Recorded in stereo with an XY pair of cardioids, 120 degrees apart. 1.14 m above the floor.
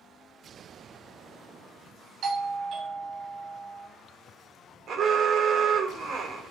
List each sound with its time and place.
2.2 s a doorbell: 55° right, 1.5 m
4.9 s an alarm: 50° right, 1.0 m